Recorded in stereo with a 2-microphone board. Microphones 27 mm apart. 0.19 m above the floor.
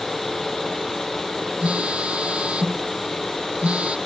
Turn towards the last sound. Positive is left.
turn(degrees=-55)  # may be behind; listen again after turning